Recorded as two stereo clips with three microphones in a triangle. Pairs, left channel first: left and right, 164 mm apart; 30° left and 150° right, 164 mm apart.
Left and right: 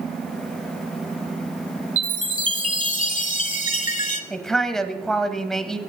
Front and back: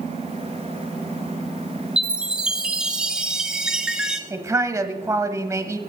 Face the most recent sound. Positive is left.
turn(degrees=175)